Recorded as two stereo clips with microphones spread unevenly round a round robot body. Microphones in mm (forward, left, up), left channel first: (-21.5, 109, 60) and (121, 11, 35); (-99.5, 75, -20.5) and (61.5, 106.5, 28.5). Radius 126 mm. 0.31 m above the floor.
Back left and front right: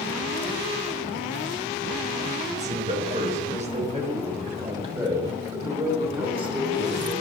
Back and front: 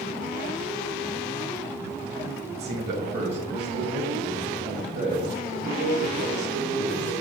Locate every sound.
2.5 s a man speaking: 25° right, 1.7 m; by 7.1 s 25° left, 4 m